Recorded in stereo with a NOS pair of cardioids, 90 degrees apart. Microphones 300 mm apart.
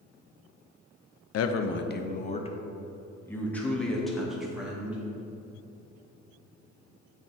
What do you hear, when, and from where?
1.3 s a man speaking: 55° left, 0.6 m; by 5.0 s 5° right, 2 m